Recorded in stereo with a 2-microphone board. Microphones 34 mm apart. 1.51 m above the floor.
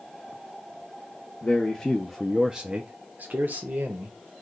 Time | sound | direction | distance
1.4 | a man speaking | 25° left (ahead or behind) | 0.8 m